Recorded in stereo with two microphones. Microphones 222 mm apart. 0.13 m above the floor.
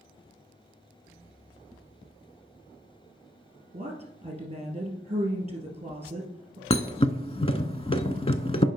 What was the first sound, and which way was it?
A woman speaking, 30° right (ahead or behind).